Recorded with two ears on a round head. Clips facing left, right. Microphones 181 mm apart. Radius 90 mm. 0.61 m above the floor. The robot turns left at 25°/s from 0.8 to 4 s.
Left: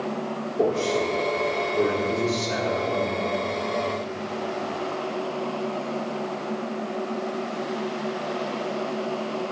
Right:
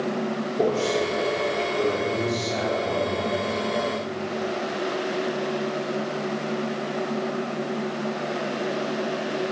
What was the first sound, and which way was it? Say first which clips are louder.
A man speaking: even; straight behind.